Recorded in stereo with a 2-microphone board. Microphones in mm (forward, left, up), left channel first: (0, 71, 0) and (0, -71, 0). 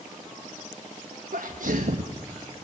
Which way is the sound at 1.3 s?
75° right (ahead or behind).